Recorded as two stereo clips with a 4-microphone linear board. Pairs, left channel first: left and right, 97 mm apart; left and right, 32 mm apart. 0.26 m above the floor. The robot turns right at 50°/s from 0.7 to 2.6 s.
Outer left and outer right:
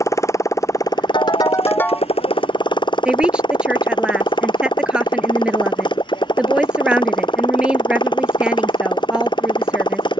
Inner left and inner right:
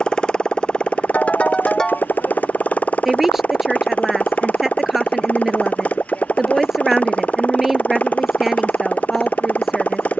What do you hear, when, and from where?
0.0 s a motorcycle: 30° left; by 10.2 s 125° left
1.1 s a ringtone: 125° left; by 2.1 s 175° left
3.0 s a woman speaking: 10° right (ahead or behind)